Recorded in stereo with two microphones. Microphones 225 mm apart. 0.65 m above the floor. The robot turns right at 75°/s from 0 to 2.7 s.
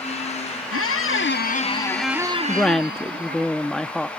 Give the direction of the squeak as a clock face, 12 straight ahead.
9 o'clock.